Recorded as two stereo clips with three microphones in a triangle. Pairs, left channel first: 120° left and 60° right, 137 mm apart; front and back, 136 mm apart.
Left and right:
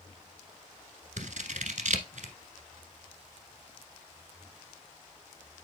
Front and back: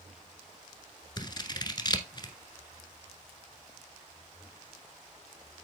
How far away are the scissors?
About 1.1 m.